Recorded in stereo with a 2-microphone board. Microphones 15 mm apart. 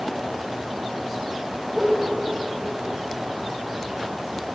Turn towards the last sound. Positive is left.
turn(degrees=-10)  # may be behind; listen again after turning